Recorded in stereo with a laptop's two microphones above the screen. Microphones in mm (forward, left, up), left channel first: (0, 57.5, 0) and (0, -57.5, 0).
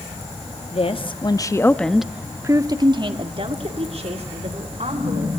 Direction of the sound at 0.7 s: 55° left (ahead or behind).